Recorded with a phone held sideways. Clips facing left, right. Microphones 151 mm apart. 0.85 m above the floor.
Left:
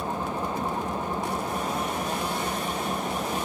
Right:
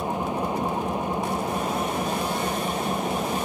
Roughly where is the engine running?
Centre.